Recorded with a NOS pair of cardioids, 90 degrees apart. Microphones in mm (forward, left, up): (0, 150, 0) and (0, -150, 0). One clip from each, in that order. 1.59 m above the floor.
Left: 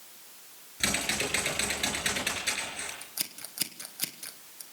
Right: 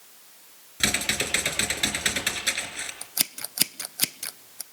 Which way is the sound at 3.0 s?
45° right.